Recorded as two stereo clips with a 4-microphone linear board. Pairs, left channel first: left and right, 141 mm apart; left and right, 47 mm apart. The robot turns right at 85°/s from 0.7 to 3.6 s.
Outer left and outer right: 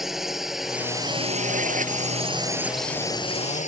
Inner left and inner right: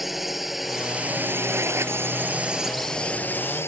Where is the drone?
175° right; by 3.7 s 70° left.